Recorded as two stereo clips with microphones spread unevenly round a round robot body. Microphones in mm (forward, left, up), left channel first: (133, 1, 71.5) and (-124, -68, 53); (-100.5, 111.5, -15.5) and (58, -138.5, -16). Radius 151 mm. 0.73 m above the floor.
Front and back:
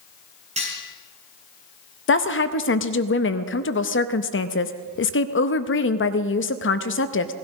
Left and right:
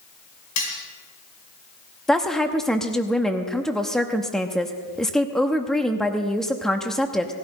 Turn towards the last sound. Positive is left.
turn(degrees=35)